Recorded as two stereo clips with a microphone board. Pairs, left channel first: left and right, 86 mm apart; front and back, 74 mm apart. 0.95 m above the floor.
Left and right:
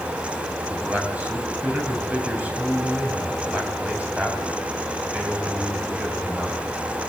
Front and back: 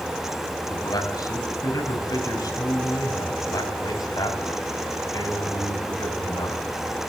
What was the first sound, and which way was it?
A man speaking, 20° right.